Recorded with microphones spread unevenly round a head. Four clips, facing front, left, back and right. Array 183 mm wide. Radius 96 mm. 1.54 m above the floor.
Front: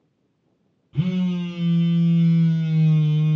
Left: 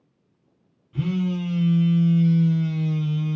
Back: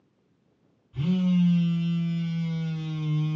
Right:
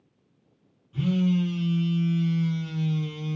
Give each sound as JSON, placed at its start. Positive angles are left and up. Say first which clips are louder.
{"t": 0.9, "sound": "a phone buzzing", "louder": "right 1 dB, front 1 dB", "azimuth_deg": 10, "distance_m": 0.7}